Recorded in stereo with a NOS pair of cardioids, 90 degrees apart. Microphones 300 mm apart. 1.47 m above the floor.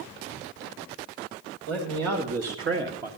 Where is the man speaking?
65° right, 2.5 m; by 3.1 s 25° right, 1.2 m.